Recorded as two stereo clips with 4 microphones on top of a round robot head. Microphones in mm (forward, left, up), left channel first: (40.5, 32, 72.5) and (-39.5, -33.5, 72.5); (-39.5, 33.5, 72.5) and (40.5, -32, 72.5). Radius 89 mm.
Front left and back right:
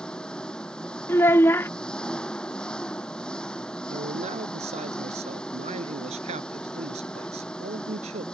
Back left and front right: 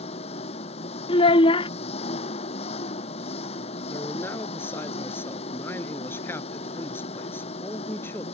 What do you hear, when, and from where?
0.0 s an engine running: 120° left
1.1 s a child speaking: 110° left
3.9 s a man speaking: 150° right